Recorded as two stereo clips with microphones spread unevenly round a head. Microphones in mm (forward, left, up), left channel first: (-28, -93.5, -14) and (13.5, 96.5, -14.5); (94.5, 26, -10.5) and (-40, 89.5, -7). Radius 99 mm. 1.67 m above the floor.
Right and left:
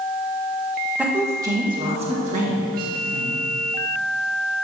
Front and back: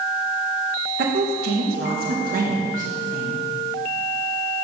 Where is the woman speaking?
160° left, 1.9 m; by 3.4 s 115° left, 2.5 m.